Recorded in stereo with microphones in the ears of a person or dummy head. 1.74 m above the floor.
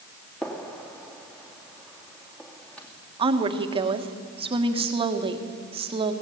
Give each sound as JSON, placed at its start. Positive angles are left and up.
{"t": 0.4, "sound": "a gunshot", "side_deg": 5, "distance_m": 2.5}
{"t": 3.2, "sound": "a woman speaking", "side_deg": -35, "distance_m": 1.5}